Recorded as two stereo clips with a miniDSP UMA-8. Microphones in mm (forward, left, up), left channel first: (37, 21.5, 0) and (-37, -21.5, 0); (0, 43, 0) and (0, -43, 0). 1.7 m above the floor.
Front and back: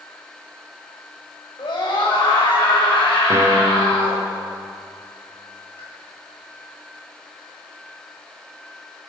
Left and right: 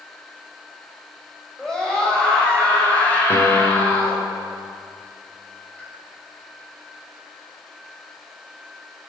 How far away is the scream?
About 7.5 m.